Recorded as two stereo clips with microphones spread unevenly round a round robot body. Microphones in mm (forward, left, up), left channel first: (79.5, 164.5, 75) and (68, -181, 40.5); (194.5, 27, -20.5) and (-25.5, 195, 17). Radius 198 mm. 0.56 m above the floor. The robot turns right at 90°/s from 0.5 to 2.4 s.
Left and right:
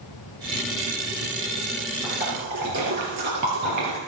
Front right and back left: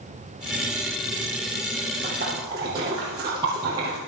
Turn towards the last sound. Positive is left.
turn(degrees=-140)